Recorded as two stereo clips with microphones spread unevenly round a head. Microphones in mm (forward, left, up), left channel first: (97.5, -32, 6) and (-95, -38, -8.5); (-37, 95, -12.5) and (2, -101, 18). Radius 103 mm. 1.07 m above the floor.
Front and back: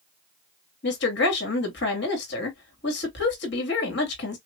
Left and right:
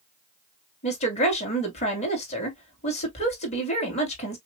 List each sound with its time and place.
0.8 s a woman speaking: 45° left, 2.5 m